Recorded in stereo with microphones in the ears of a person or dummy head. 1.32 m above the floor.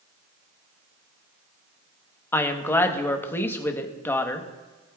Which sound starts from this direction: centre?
A woman speaking, at 2.3 s.